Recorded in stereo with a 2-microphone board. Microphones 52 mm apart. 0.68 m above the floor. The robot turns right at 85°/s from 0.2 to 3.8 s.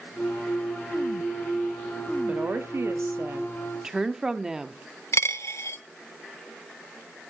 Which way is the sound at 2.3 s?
145° right.